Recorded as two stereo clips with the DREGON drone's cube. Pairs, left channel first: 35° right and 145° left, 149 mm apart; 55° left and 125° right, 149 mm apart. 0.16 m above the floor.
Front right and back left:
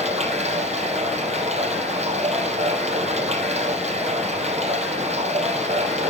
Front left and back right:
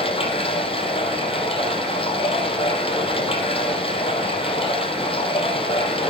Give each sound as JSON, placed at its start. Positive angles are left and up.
{"t": 0.0, "sound": "running water", "azimuth_deg": 105, "distance_m": 3.0}